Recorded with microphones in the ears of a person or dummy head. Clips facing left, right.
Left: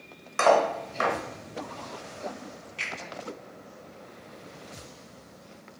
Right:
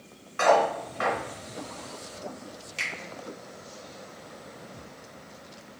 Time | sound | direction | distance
0.4 | cutlery clinking | 60° left (ahead or behind) | 0.9 m
2.8 | a finger snap | 70° right (ahead or behind) | 1.5 m